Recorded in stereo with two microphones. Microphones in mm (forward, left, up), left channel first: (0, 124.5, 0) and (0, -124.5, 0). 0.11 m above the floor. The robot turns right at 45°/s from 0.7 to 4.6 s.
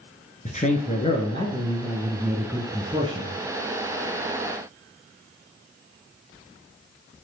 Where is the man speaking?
110° left, 2.0 m; by 3.3 s 130° right, 2.0 m.